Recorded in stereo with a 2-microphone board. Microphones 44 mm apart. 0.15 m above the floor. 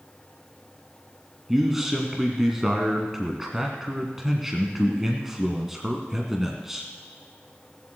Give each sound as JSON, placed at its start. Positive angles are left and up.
{"t": 1.5, "sound": "a man speaking", "side_deg": -10, "distance_m": 1.5}